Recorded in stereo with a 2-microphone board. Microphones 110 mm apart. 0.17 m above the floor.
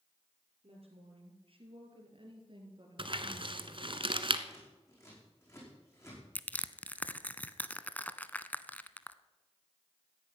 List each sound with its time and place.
0.6 s a woman speaking: 60° right (ahead or behind), 4.5 m; by 4.0 s 30° right (ahead or behind), 3 m
3.0 s crumpling: 50° right (ahead or behind), 1.1 m
4.5 s scissors: 25° left (ahead or behind), 7.5 m
6.3 s crushing: 15° left (ahead or behind), 0.6 m